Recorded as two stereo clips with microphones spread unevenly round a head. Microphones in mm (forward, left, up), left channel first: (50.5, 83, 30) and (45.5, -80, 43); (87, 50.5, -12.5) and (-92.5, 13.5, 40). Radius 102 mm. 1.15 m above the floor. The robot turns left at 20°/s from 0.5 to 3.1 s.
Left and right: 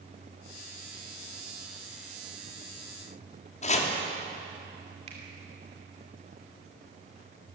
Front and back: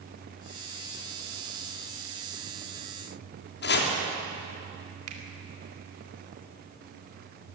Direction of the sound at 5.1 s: 150° right.